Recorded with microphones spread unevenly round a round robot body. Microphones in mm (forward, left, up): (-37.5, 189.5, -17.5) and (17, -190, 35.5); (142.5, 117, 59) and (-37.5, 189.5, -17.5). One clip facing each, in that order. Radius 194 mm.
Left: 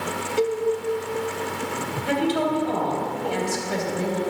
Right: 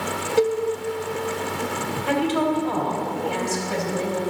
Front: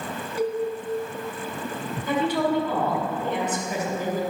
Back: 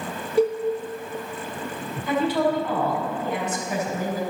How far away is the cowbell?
About 0.6 m.